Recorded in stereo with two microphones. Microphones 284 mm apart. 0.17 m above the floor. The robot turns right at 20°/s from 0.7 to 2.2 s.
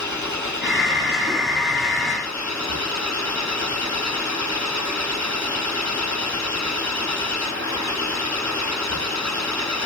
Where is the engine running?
80° left; by 9.9 s 110° left.